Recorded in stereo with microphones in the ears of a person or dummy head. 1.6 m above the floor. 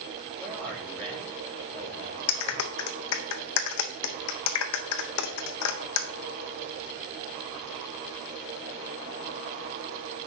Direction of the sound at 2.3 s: 60° left (ahead or behind).